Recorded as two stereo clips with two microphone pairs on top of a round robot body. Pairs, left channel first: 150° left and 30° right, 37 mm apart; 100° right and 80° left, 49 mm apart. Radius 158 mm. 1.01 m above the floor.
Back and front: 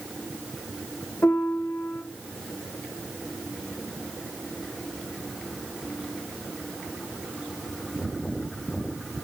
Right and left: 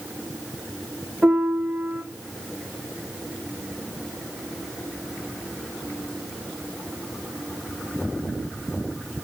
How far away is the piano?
About 1.0 m.